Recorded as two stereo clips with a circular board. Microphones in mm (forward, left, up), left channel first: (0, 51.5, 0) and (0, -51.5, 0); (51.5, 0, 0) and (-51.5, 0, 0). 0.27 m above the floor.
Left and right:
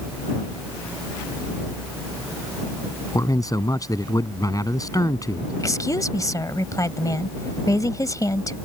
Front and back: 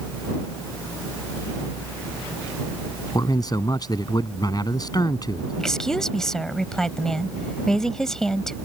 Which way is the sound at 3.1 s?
40° left.